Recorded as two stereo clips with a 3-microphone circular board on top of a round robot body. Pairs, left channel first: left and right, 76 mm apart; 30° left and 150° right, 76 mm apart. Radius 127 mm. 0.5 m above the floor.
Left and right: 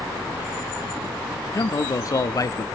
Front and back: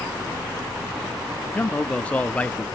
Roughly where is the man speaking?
Left.